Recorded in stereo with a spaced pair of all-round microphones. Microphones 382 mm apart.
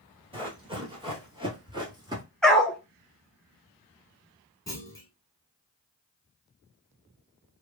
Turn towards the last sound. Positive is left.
turn(degrees=10)  # may be behind; listen again after turning